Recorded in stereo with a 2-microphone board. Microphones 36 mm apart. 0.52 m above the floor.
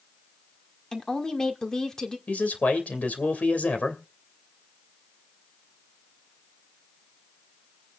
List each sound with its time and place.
0.9 s a woman speaking: 15° left (ahead or behind), 1.6 m
2.3 s a man speaking: 45° left (ahead or behind), 2.5 m